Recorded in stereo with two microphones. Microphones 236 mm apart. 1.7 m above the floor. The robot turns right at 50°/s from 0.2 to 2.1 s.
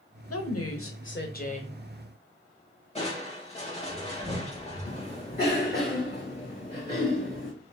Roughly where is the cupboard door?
I don't hear a cupboard door.